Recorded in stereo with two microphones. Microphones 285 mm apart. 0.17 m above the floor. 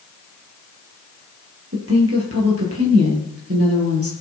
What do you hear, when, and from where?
1.7 s a woman speaking: 55° right (ahead or behind), 4.5 m